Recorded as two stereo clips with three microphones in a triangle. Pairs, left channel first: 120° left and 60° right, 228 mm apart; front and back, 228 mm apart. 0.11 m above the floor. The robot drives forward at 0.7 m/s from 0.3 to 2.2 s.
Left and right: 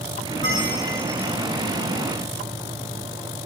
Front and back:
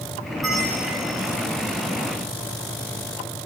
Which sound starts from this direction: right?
A bell, at 0.4 s.